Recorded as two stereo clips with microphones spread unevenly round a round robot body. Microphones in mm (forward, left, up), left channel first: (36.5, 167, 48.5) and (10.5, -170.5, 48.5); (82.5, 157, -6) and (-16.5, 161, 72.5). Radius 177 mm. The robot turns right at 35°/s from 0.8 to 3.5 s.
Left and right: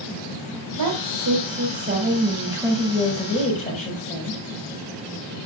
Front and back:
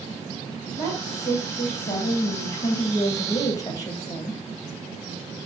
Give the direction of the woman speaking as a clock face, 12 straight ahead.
3 o'clock.